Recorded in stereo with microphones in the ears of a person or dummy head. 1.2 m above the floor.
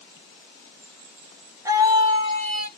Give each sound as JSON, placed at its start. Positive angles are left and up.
{"t": 1.6, "sound": "a scream", "side_deg": -10, "distance_m": 1.1}